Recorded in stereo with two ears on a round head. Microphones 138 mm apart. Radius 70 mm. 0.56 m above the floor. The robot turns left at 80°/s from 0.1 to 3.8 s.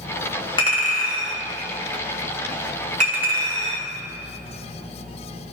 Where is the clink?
30° left (ahead or behind), 1.5 m; by 3.9 s 70° right (ahead or behind), 1.5 m.